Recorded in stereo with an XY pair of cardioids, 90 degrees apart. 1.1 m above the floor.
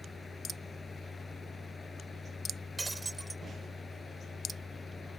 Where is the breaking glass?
25° right.